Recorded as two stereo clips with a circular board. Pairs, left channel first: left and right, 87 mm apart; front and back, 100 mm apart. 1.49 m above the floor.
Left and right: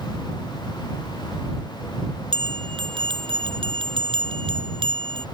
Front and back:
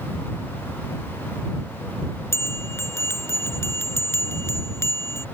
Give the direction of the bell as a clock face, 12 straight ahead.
2 o'clock.